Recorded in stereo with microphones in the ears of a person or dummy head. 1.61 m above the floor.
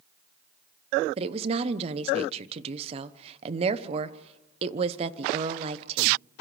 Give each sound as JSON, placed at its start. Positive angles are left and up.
{"t": 1.2, "sound": "a woman speaking", "side_deg": -35, "distance_m": 1.1}